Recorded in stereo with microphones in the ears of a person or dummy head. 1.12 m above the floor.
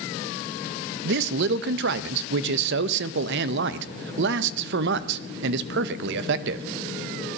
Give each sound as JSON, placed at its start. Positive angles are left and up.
{"t": 1.1, "sound": "a man speaking", "side_deg": -65, "distance_m": 0.8}